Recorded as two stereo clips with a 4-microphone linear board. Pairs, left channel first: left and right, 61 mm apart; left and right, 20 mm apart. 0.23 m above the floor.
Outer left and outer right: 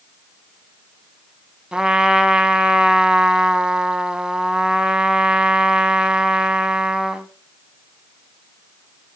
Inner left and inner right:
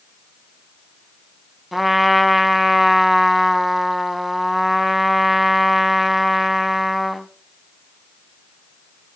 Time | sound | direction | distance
1.7 | a trumpet | 15° right (ahead or behind) | 0.8 m